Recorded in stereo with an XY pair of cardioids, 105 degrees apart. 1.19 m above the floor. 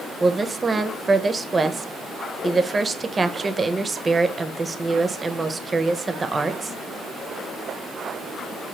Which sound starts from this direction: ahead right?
A woman speaking, at 0.2 s.